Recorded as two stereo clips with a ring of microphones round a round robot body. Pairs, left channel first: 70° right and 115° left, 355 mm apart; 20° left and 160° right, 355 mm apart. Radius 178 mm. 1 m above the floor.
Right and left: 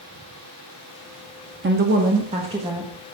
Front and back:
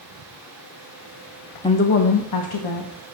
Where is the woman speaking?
90° left, 0.8 m; by 2.9 s 35° left, 1.6 m.